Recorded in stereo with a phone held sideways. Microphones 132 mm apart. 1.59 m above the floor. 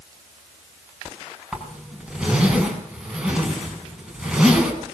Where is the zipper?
5° right (ahead or behind), 5.5 m.